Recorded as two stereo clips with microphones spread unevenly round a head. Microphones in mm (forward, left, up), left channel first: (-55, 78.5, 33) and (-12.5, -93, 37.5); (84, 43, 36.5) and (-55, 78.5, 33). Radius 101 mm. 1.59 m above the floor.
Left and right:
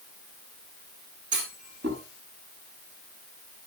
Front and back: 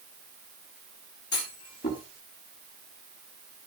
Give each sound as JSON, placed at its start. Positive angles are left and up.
{"t": 1.3, "sound": "a clunk", "azimuth_deg": -40, "distance_m": 5.0}